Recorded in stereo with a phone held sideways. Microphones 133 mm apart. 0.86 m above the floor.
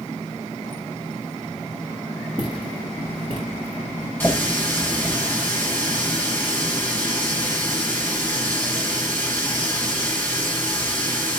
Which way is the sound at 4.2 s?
15° left (ahead or behind).